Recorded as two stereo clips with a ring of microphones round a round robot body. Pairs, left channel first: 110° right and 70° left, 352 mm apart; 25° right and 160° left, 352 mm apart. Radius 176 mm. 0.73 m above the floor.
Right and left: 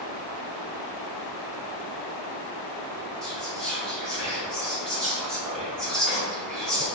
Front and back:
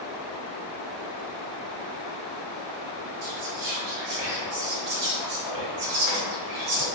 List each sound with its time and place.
3.2 s whispering: 160° left, 1.0 m